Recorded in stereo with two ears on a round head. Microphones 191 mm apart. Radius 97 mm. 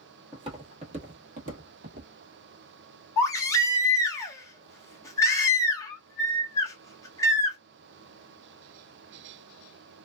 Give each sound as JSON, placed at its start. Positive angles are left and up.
{"t": 0.3, "sound": "footsteps", "side_deg": -25, "distance_m": 1.3}
{"t": 3.2, "sound": "a baby crying", "side_deg": 15, "distance_m": 0.8}